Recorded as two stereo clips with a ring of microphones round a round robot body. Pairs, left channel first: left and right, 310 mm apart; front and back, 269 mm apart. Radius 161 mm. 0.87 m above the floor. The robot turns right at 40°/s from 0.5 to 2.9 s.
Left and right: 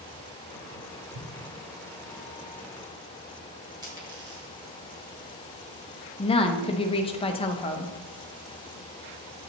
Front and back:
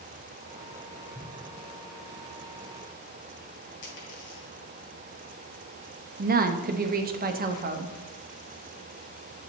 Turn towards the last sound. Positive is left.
turn(degrees=150)